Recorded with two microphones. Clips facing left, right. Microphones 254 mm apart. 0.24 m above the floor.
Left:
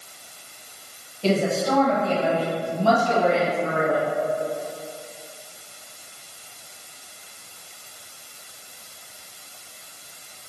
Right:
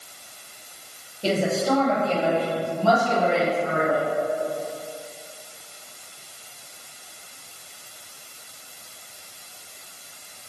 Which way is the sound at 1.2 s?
15° right (ahead or behind).